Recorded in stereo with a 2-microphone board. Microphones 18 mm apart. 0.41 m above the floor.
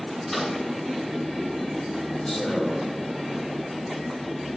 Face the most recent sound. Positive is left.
turn(degrees=70)  # may be behind; listen again after turning